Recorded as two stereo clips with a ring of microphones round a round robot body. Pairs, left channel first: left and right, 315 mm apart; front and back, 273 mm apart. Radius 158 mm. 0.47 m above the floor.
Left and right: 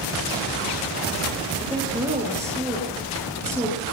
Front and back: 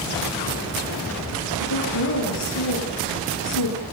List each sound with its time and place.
1.6 s a woman speaking: 10° right, 7.5 m